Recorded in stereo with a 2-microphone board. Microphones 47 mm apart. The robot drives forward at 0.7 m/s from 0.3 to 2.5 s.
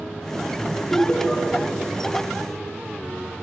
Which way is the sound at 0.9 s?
20° left (ahead or behind).